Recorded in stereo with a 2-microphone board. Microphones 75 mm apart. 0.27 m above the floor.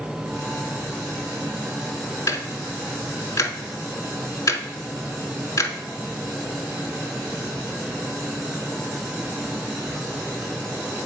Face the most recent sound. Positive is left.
turn(degrees=50)  # may be behind; listen again after turning